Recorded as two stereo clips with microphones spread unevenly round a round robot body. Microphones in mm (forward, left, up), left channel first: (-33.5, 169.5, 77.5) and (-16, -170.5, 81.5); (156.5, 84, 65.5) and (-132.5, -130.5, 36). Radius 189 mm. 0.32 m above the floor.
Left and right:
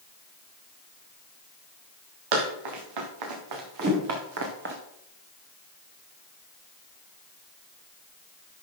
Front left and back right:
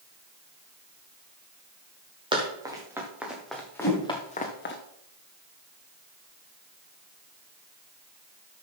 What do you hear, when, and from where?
2.3 s running footsteps: 65° right, 4 m; by 4.8 s 20° right, 2 m
3.8 s a whoosh: 30° right, 2.5 m